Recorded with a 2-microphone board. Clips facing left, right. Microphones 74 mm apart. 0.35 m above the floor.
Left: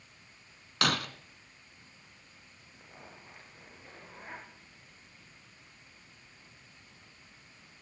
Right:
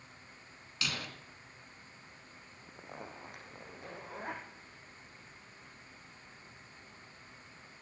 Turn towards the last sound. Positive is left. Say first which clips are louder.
# right 6 dB
turn(degrees=-70)  # may be behind; listen again after turning